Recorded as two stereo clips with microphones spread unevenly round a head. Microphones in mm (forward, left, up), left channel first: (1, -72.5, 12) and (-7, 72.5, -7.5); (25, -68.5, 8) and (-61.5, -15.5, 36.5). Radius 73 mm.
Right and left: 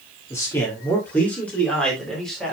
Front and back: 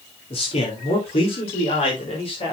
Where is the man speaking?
15° right, 3 m; by 2.5 s straight ahead, 4 m.